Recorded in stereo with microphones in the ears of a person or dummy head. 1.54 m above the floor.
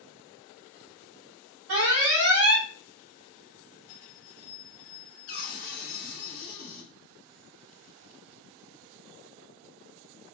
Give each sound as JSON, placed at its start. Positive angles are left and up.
{"t": 1.7, "sound": "an alarm", "side_deg": -80, "distance_m": 1.7}
{"t": 3.9, "sound": "a bell", "side_deg": 60, "distance_m": 1.3}
{"t": 5.3, "sound": "a cupboard door", "side_deg": 65, "distance_m": 2.5}